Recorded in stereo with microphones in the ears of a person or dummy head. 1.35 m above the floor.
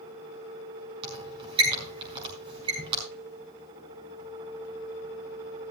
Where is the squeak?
30° right (ahead or behind), 5.5 m.